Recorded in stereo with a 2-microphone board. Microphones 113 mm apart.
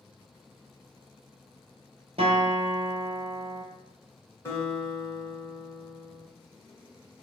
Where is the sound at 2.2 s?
60° right (ahead or behind), 1.1 m.